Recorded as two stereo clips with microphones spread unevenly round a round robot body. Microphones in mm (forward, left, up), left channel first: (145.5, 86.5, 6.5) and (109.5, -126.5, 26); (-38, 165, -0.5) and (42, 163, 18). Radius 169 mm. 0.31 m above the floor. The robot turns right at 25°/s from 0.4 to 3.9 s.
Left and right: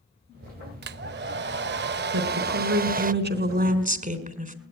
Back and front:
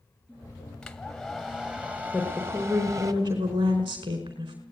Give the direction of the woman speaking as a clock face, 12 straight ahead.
3 o'clock.